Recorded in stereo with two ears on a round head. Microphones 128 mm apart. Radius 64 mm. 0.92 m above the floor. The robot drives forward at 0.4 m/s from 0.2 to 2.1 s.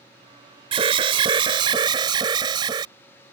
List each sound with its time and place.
0.7 s an alarm: 40° right (ahead or behind); by 2.9 s 30° right (ahead or behind)